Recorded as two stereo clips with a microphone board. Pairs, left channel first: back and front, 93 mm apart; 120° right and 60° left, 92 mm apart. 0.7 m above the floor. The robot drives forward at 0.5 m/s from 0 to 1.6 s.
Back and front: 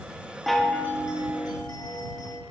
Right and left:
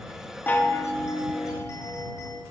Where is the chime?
90° right, 0.5 m; by 2.4 s 160° right, 0.8 m.